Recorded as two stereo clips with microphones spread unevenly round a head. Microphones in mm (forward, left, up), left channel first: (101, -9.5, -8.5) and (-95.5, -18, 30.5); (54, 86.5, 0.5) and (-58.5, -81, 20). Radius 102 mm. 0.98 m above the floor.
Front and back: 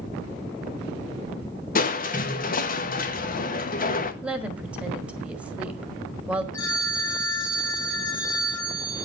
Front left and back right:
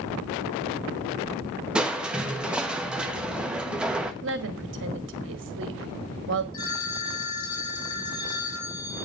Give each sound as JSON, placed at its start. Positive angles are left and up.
{"t": 1.8, "sound": "crushing", "azimuth_deg": -35, "distance_m": 1.0}
{"t": 4.2, "sound": "a woman speaking", "azimuth_deg": -90, "distance_m": 1.4}
{"t": 6.5, "sound": "a phone ringing", "azimuth_deg": 35, "distance_m": 5.0}